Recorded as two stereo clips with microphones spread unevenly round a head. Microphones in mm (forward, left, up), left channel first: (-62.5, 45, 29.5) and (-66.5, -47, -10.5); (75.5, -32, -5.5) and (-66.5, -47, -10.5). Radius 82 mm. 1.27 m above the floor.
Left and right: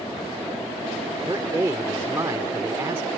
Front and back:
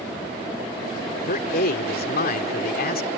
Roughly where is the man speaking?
Ahead.